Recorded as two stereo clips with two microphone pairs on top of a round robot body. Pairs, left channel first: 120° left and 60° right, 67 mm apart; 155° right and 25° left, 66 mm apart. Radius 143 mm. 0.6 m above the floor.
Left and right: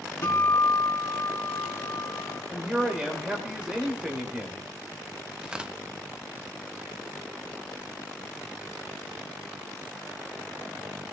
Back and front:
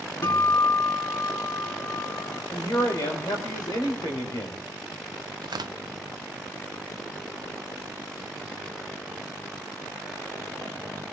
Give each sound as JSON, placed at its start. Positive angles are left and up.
{"t": 0.2, "sound": "a guitar", "azimuth_deg": 165, "distance_m": 4.0}
{"t": 2.5, "sound": "a man speaking", "azimuth_deg": -140, "distance_m": 3.5}
{"t": 5.4, "sound": "tearing paper", "azimuth_deg": 15, "distance_m": 0.6}